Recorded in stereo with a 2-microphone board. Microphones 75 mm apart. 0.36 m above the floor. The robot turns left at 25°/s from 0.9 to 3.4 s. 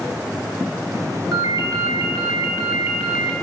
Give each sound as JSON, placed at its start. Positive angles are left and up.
{"t": 1.3, "sound": "a ringtone", "azimuth_deg": -110, "distance_m": 1.7}